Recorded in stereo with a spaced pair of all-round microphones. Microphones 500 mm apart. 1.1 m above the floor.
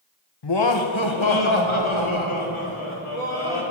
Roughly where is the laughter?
Left.